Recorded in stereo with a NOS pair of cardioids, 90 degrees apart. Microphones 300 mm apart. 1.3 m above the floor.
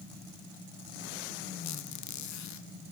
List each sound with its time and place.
1.6 s a squeak: 70° left, 1.4 m